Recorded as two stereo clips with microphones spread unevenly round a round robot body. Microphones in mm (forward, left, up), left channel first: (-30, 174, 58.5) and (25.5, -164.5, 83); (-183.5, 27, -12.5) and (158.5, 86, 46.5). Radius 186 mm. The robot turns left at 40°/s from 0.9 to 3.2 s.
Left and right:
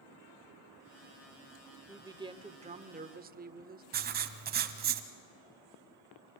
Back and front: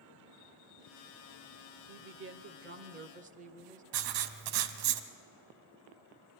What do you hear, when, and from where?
1.9 s a woman speaking: straight ahead, 0.9 m; by 3.8 s 50° right, 0.9 m
3.9 s writing: 15° right, 1.0 m